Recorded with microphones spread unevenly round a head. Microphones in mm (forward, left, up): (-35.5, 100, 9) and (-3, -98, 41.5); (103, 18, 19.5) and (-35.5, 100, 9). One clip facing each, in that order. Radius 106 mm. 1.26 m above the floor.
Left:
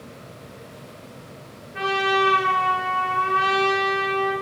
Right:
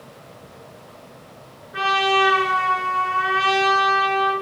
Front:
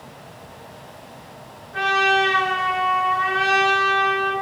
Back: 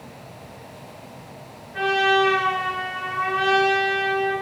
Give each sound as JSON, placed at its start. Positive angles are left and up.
{"t": 1.7, "sound": "a trumpet", "azimuth_deg": -85, "distance_m": 7.0}